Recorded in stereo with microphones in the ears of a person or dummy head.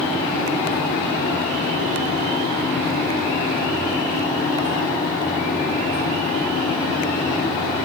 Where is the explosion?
No explosion in this recording.